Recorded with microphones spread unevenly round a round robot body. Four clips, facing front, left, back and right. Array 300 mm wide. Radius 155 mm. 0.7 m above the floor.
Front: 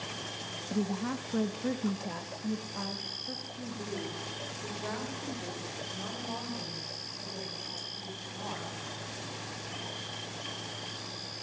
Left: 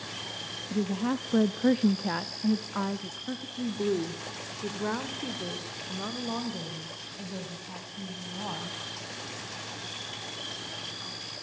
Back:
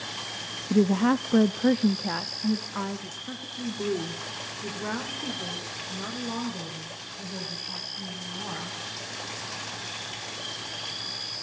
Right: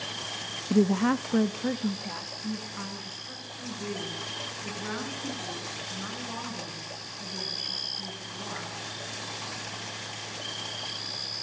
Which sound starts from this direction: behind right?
A woman speaking, at 0.7 s.